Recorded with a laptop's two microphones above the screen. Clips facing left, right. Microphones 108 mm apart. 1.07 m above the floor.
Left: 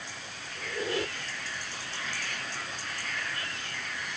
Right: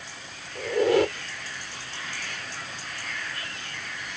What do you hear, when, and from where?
0.6 s a squeak: 70° right (ahead or behind)